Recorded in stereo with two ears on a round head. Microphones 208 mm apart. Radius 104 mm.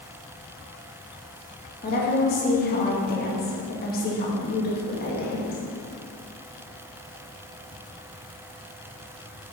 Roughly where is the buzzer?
I don't hear a buzzer.